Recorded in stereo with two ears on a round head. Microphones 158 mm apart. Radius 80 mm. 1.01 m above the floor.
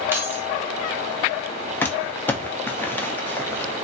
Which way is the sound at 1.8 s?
10° left (ahead or behind).